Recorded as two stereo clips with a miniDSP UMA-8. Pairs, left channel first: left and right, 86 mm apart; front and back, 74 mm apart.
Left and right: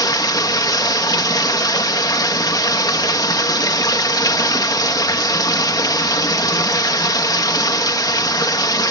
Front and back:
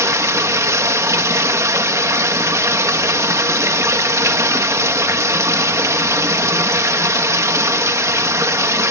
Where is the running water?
130° left, 1.7 m.